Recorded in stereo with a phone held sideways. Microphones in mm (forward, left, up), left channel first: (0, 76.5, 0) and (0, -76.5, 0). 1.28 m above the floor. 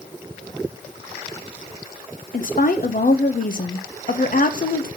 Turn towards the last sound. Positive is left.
turn(degrees=60)  # may be behind; listen again after turning